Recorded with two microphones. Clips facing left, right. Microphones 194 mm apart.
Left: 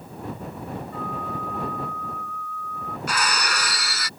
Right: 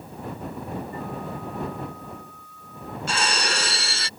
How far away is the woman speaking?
No woman speaking in this recording.